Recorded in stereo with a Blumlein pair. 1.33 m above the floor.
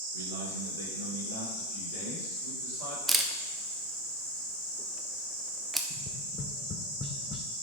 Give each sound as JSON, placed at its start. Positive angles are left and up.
{"t": 0.1, "sound": "a man speaking", "azimuth_deg": -70, "distance_m": 1.5}
{"t": 3.1, "sound": "a camera shutter", "azimuth_deg": -5, "distance_m": 0.8}
{"t": 5.9, "sound": "tapping", "azimuth_deg": 25, "distance_m": 0.8}